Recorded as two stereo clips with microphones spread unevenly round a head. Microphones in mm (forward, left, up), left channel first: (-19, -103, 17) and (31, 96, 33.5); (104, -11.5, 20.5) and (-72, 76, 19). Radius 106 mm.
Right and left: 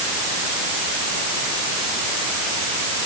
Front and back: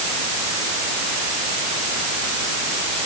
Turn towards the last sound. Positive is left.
No sound to turn to.